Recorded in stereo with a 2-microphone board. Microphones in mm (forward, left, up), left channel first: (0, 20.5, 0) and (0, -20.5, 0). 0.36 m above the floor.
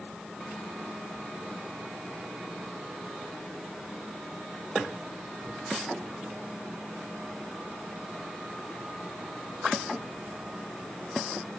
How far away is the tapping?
I don't hear tapping.